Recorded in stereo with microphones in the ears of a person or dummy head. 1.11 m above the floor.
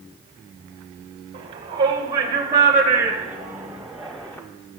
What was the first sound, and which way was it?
A shout, 35° right (ahead or behind).